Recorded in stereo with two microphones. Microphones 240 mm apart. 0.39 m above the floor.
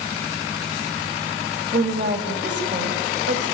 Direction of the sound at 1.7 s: 50° right (ahead or behind).